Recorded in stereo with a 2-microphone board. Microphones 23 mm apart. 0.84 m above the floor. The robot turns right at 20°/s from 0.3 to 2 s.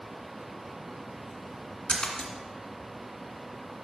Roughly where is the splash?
Left.